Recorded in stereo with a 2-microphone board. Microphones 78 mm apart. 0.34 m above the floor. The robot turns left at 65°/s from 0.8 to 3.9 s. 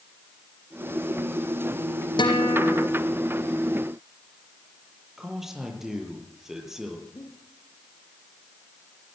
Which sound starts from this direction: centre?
A man speaking, at 5.2 s.